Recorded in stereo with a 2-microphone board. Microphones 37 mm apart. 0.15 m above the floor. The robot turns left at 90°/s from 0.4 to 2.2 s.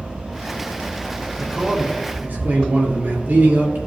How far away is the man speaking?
About 3 m.